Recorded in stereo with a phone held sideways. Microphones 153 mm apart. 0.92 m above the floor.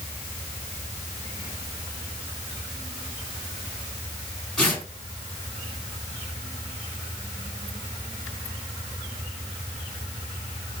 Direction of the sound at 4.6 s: 5° left (ahead or behind).